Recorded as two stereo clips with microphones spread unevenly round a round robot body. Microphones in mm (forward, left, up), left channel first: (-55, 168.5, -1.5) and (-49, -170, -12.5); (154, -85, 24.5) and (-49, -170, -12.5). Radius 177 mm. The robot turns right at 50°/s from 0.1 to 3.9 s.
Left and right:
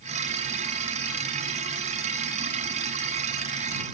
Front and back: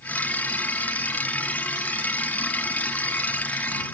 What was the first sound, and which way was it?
Only background noise.